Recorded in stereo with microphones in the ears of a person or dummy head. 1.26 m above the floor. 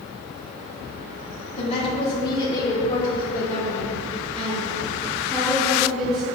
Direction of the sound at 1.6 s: 40° left (ahead or behind).